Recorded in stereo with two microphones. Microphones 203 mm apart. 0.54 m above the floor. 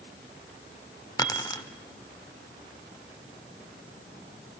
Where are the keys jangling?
20° left (ahead or behind), 0.9 m.